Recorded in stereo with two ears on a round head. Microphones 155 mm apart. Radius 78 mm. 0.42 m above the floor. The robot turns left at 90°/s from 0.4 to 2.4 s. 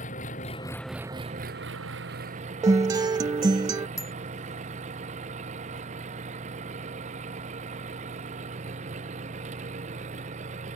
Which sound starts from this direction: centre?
A bicycle bell, at 4.0 s.